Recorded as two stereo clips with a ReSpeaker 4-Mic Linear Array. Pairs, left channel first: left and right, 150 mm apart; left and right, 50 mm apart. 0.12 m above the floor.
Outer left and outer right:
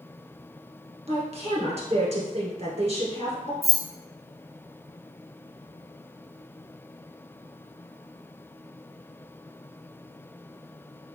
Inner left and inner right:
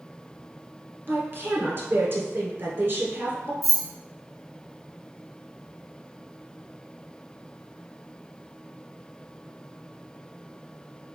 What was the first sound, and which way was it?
A woman speaking, 40° right (ahead or behind).